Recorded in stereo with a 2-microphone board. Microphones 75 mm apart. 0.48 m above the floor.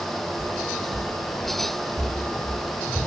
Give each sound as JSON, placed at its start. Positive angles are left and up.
{"t": 0.4, "sound": "footsteps", "side_deg": -65, "distance_m": 1.3}